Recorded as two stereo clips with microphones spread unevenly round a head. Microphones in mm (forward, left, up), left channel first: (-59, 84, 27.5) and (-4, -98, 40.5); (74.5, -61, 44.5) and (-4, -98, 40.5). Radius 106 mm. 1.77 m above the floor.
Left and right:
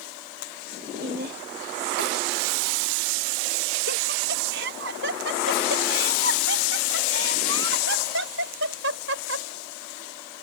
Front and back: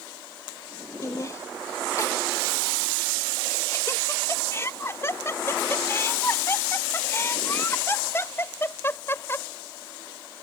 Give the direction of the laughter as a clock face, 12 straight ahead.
1 o'clock.